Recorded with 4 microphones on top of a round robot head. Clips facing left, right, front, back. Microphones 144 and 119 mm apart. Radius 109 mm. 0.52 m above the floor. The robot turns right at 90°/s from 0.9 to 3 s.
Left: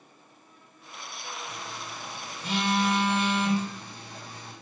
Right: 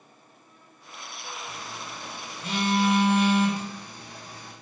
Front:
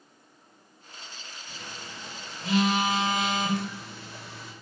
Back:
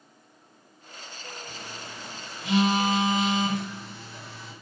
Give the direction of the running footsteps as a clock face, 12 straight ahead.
No running footsteps in this recording.